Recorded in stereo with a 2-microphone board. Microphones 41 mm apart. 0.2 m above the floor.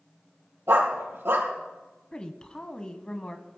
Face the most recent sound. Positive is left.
turn(degrees=20)  # may be behind; listen again after turning